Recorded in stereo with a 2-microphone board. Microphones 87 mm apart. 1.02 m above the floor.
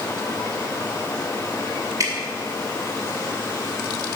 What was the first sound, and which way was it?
Dripping, 40° right (ahead or behind).